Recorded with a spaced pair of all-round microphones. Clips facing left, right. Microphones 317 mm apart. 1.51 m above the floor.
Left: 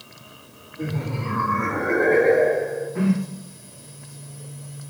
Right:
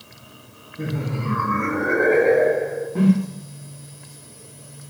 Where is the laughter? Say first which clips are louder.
Right 1 dB; 25° right (ahead or behind), 2.5 m; by 2.9 s 5° right (ahead or behind), 4 m.